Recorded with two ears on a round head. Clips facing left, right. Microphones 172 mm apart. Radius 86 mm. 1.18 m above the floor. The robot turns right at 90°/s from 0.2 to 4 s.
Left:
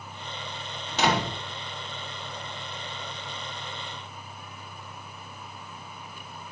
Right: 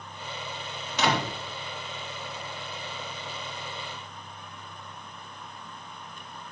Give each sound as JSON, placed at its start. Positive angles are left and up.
{"t": 0.9, "sound": "a door slam", "side_deg": 35, "distance_m": 4.5}